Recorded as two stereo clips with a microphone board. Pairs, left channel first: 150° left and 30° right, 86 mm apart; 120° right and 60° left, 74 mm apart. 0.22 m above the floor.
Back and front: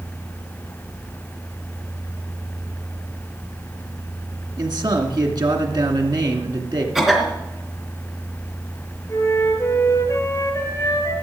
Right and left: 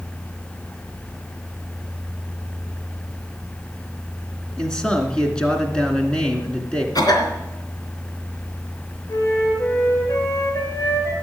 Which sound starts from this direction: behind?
A flute, at 9.1 s.